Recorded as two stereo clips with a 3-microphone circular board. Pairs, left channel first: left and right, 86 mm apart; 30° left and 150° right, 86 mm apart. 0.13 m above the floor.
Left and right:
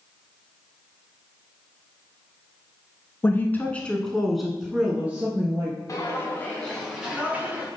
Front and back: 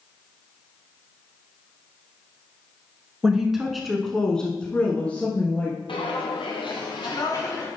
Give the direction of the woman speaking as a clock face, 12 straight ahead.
8 o'clock.